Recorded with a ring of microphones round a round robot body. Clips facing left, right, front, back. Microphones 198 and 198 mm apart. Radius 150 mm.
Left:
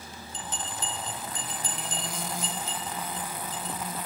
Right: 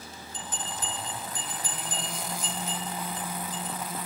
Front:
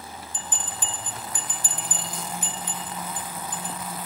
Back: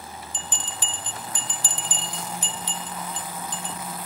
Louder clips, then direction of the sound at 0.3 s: Even, even; 155° left.